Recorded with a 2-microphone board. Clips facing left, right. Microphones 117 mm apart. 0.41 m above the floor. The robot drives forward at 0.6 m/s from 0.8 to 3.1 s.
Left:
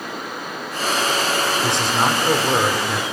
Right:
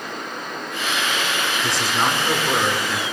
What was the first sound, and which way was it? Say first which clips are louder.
A man speaking: even; 25° left (ahead or behind).